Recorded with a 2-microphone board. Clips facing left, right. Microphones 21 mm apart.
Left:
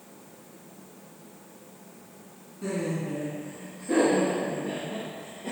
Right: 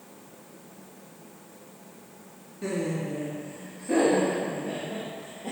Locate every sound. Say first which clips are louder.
2.6 s laughter: right 1 dB; 15° right (ahead or behind), 1.8 m; by 5.5 s 20° left (ahead or behind), 3.5 m